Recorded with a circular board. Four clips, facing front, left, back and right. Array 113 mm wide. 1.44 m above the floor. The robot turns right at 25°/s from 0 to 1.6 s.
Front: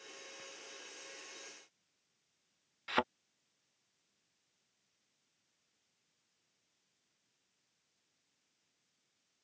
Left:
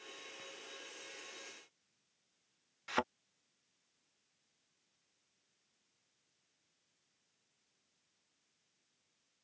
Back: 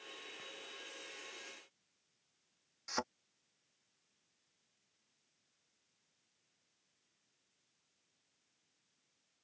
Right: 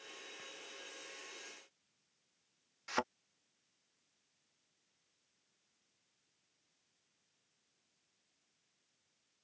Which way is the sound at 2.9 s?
10° left.